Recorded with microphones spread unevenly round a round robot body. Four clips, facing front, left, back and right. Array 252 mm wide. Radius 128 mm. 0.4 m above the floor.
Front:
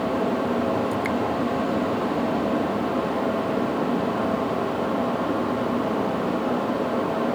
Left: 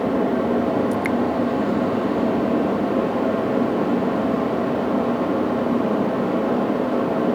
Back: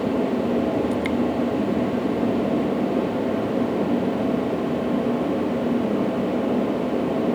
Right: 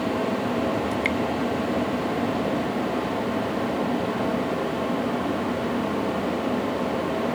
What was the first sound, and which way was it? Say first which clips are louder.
Dripping: left 4 dB, back 1 dB; 135° left.